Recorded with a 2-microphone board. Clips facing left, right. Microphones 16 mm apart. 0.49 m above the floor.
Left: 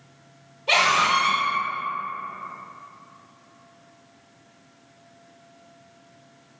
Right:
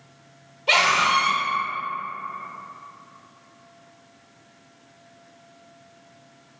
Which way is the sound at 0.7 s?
35° right (ahead or behind).